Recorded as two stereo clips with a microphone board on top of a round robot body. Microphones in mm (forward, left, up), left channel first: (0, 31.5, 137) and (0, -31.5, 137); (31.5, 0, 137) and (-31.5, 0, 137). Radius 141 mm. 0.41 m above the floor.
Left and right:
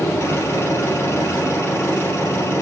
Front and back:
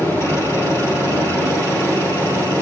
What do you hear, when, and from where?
0.0 s an engine running: 50° left, 5.5 m